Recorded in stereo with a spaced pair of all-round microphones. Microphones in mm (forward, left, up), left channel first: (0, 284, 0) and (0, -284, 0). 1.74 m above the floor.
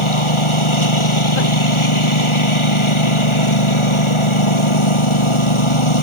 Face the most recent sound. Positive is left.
turn(degrees=50)  # may be behind; listen again after turning